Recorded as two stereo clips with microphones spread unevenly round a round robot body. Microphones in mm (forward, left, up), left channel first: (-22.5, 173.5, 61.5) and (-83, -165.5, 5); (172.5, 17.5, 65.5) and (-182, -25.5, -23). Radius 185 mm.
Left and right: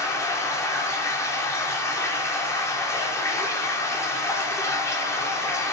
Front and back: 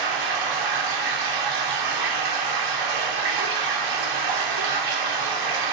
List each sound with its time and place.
0.0 s running water: 165° left, 2.5 m